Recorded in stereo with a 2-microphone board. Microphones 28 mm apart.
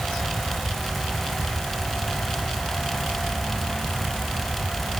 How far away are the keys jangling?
No keys jangling in this recording.